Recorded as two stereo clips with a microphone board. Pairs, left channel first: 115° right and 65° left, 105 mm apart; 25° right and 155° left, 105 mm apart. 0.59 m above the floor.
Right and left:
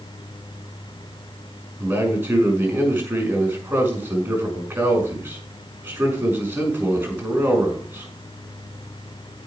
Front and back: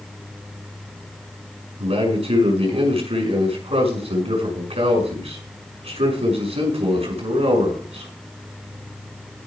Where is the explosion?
No explosion in this recording.